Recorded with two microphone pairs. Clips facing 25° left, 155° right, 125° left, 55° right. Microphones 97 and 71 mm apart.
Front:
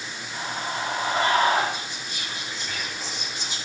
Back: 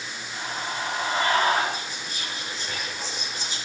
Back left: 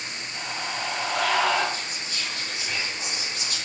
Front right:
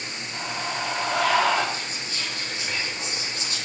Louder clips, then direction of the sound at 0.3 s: Front 2 dB, front right 2 dB; 50° right.